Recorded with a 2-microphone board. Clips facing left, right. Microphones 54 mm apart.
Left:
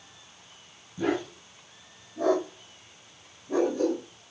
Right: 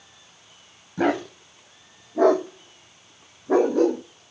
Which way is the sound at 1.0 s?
70° right (ahead or behind).